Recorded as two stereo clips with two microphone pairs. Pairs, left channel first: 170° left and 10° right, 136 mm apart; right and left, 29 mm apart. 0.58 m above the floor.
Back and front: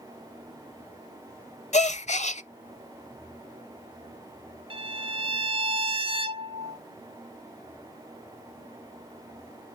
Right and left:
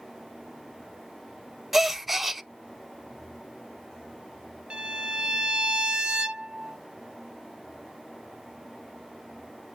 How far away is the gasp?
About 0.6 m.